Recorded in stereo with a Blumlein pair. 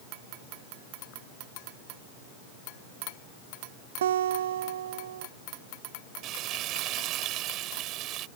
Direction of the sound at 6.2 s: 35° right.